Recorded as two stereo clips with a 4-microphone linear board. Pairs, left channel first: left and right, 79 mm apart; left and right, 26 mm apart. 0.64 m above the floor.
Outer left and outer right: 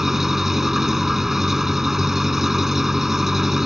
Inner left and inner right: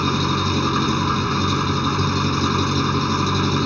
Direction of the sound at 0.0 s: 5° right (ahead or behind).